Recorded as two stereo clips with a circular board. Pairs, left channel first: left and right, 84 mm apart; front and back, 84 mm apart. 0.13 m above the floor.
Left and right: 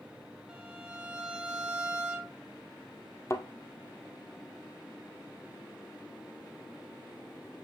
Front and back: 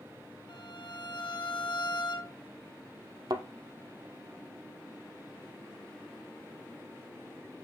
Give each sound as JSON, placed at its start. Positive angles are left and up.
{"t": 0.5, "sound": "a violin", "azimuth_deg": -10, "distance_m": 1.6}
{"t": 3.3, "sound": "a thud", "azimuth_deg": 145, "distance_m": 1.1}